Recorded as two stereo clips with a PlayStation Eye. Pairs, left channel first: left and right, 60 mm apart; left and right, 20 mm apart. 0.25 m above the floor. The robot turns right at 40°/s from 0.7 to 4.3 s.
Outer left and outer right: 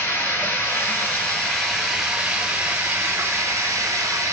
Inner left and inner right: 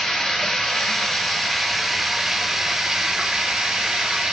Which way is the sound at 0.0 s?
130° left.